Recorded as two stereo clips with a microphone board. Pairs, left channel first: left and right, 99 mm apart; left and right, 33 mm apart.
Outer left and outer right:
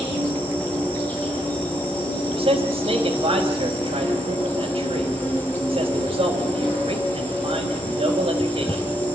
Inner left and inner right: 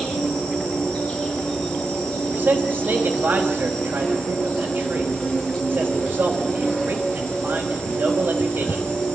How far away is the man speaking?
About 3.5 m.